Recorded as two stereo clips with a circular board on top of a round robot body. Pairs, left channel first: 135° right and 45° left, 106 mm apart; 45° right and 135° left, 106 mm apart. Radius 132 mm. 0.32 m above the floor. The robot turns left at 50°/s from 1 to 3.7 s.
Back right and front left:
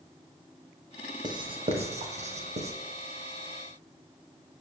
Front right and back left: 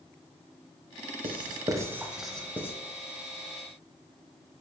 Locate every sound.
1.2 s writing: 95° left, 1.0 m; by 2.7 s 25° left, 1.0 m